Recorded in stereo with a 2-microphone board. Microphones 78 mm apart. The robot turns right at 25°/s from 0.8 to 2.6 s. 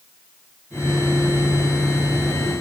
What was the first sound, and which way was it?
Only background noise.